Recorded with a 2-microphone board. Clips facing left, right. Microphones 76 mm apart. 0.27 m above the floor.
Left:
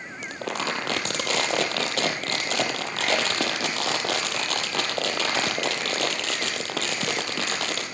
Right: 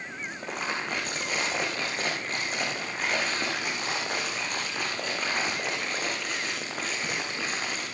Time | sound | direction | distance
0.2 | crumpling | 85° left | 3 m